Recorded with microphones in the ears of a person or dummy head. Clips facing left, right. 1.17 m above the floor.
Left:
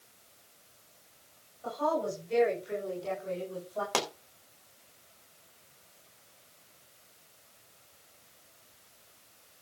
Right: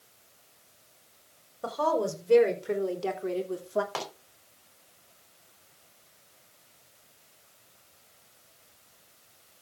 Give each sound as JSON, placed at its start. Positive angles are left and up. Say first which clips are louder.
{"t": 1.6, "sound": "a woman speaking", "louder": "right 3 dB", "side_deg": -85, "distance_m": 4.0}
{"t": 3.9, "sound": "a pop", "louder": "left 4 dB", "side_deg": 50, "distance_m": 2.5}